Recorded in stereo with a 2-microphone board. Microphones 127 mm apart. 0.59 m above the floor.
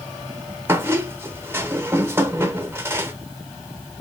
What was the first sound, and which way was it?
A squeak, 20° right (ahead or behind).